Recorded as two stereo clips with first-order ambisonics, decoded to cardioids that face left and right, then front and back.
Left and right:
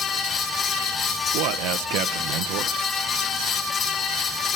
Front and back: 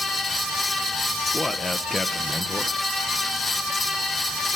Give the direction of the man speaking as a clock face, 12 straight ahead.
3 o'clock.